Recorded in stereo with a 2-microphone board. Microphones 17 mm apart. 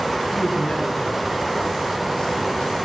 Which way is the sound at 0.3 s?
50° left (ahead or behind).